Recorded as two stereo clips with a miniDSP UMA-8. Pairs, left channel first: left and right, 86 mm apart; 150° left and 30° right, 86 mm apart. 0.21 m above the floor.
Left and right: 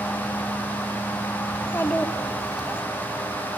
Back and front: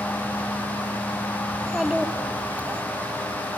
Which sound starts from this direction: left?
A child speaking, at 1.5 s.